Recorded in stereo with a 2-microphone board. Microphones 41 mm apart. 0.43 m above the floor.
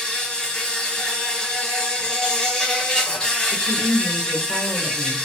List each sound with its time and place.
0.0 s an insect: 20° left (ahead or behind), 0.9 m
3.5 s a woman speaking: centre (ahead or behind), 0.9 m